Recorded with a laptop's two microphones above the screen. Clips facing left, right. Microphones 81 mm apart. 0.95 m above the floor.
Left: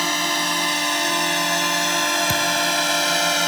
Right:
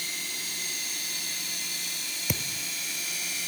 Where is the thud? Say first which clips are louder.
Left 15 dB; 10° right (ahead or behind).